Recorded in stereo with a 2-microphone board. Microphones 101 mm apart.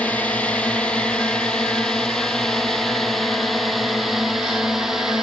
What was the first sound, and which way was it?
A drone, 15° left (ahead or behind).